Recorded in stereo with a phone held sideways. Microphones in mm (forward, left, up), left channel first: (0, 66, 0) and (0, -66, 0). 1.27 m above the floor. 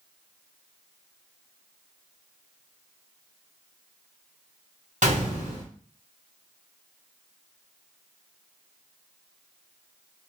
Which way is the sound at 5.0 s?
65° right (ahead or behind).